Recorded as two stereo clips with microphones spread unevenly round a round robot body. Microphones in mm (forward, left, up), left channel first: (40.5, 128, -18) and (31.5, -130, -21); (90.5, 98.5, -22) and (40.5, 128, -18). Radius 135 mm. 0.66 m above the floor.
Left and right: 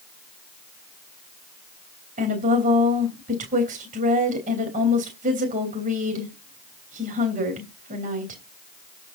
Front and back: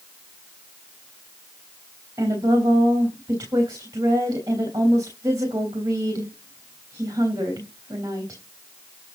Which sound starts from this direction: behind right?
A woman speaking, at 2.2 s.